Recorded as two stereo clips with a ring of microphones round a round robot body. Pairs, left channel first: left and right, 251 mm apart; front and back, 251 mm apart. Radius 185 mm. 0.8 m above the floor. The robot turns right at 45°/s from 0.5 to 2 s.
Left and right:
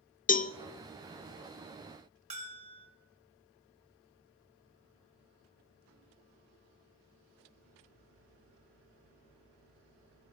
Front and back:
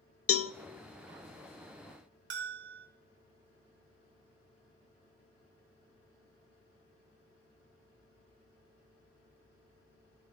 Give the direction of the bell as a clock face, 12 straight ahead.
5 o'clock.